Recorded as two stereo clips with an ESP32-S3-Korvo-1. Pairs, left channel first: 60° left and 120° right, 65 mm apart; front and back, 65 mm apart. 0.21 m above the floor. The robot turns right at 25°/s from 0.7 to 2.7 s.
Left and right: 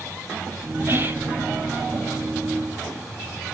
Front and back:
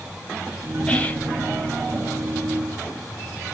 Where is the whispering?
75° right, 3 m; by 1.3 s 65° right, 3 m.